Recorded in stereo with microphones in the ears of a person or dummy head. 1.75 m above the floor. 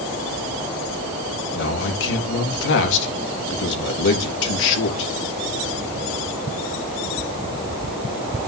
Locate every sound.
1.5 s a man speaking: 65° left (ahead or behind), 3.5 m